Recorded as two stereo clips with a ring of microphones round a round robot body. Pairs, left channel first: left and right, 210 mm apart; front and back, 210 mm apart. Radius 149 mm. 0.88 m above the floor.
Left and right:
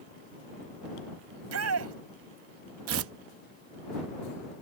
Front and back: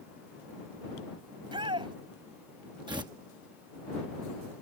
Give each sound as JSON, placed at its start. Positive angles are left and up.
{"t": 1.3, "sound": "a shout", "azimuth_deg": -105}
{"t": 2.9, "sound": "tearing paper", "azimuth_deg": -105}